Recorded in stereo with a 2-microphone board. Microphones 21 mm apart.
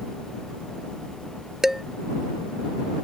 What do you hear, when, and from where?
1.6 s dishes clattering: 15° right (ahead or behind)